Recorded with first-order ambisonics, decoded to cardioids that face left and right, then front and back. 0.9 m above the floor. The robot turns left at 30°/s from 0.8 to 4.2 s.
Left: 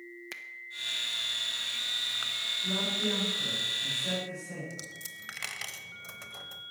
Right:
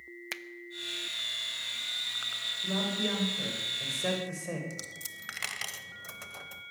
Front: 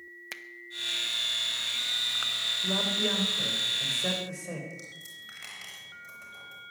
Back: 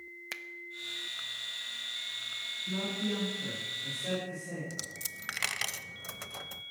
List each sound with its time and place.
0.3 s a finger snap: 90° right, 0.6 m
2.6 s a man speaking: 10° right, 4.5 m; by 4.6 s 55° right, 4.5 m
4.7 s a dropped coin: 170° right, 0.9 m